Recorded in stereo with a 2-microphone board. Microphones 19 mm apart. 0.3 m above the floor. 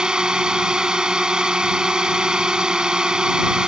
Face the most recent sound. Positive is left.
turn(degrees=-45)  # may be behind; listen again after turning